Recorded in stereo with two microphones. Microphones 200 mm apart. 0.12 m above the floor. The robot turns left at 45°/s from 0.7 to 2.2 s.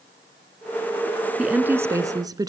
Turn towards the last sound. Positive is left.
turn(degrees=-20)  # may be behind; listen again after turning